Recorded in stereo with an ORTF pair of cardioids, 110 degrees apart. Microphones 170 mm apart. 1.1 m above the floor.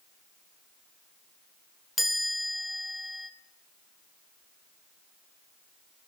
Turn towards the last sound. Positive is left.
turn(degrees=0)